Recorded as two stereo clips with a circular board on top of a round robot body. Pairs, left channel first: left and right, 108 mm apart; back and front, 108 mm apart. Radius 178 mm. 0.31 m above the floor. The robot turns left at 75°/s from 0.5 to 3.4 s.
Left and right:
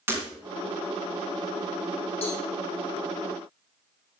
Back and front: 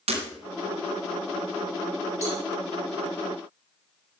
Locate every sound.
0.1 s breaking glass: 25° right, 2.5 m
2.2 s a cowbell: 65° left, 4 m; by 2.4 s 50° left, 4 m